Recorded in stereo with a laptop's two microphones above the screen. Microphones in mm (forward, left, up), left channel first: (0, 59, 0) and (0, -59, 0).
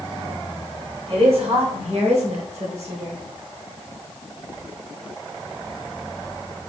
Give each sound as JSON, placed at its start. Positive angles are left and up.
{"t": 1.1, "sound": "a woman speaking", "side_deg": -65, "distance_m": 4.0}